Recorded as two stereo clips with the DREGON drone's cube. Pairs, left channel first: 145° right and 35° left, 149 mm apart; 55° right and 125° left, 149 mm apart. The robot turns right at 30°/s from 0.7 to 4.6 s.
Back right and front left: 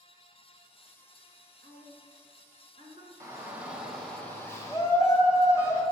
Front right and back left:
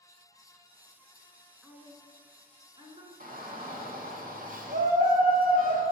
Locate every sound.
1.6 s a woman speaking: 40° left, 1.5 m; by 3.1 s 85° left, 1.5 m
3.2 s a shout: 100° left, 1.5 m; by 5.8 s 145° left, 1.5 m